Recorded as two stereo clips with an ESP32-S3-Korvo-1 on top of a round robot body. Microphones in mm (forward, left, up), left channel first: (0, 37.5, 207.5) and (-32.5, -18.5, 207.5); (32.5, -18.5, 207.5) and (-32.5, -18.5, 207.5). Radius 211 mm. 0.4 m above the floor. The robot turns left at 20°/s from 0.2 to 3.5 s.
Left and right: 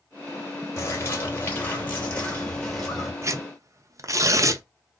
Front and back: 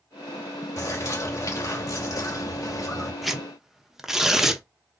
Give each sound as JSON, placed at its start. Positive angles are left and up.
{"t": 0.8, "sound": "a bird", "azimuth_deg": 15, "distance_m": 2.5}
{"t": 3.2, "sound": "tearing paper", "azimuth_deg": -90, "distance_m": 0.9}